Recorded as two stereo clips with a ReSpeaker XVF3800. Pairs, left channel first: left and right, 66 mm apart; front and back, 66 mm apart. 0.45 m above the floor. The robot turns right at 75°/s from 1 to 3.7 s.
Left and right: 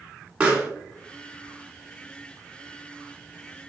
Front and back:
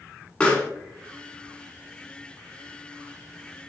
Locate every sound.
0.4 s a pop: 45° right, 1.3 m